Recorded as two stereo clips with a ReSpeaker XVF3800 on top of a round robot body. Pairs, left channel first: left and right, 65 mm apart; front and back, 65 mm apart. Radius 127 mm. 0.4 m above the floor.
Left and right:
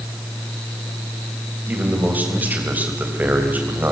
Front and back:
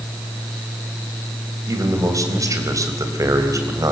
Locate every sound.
1.7 s a man speaking: 155° right, 3.5 m